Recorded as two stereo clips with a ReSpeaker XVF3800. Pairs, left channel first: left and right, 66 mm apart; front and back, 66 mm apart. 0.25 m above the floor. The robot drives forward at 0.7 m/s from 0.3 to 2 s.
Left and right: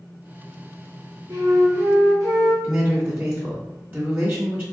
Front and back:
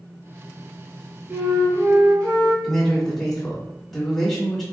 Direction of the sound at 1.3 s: 120° right.